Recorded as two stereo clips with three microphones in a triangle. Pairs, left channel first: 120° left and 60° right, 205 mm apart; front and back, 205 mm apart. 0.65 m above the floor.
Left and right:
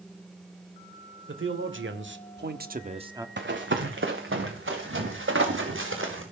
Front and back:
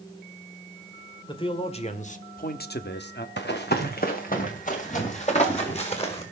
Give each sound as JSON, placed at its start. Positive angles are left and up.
{"t": 1.3, "sound": "a man speaking", "azimuth_deg": -65, "distance_m": 2.5}
{"t": 3.4, "sound": "running footsteps", "azimuth_deg": -30, "distance_m": 2.5}